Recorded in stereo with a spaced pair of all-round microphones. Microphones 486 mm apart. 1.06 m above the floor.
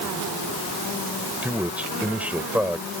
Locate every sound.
1.4 s a man speaking: 5° right (ahead or behind)